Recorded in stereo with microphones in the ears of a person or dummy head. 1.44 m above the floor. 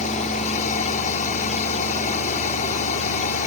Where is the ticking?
I don't hear ticking.